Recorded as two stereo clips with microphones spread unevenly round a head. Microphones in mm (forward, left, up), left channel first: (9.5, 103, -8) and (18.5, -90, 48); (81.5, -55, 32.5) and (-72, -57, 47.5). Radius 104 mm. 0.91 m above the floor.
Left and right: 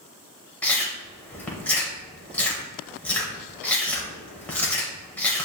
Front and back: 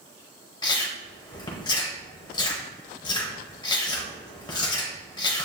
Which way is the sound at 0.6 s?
25° right.